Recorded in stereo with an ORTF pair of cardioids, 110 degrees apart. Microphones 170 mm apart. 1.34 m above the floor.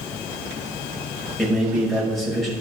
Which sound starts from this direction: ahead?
A man speaking, at 1.4 s.